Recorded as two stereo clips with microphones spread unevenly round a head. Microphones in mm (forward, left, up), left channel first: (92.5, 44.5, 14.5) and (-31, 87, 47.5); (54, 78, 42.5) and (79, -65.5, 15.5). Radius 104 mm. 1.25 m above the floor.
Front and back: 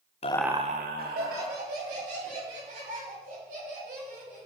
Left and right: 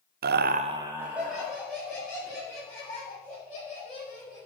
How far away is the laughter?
About 0.5 m.